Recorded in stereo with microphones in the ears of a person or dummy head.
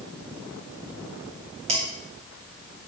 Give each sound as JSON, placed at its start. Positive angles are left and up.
{"t": 1.7, "sound": "dishes clattering", "side_deg": -35, "distance_m": 1.8}